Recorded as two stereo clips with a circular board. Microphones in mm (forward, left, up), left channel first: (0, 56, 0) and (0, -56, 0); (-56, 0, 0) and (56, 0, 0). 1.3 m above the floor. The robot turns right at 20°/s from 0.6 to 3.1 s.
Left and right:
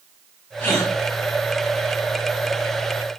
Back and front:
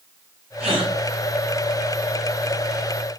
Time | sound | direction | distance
0.6 | a gasp | 20° left | 4.5 m